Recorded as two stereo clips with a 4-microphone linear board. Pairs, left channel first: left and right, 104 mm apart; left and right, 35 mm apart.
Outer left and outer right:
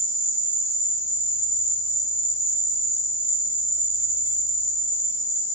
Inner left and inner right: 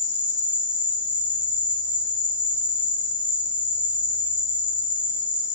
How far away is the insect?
About 1.7 m.